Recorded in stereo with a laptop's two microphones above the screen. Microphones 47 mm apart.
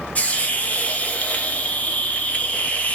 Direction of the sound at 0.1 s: 30° left (ahead or behind).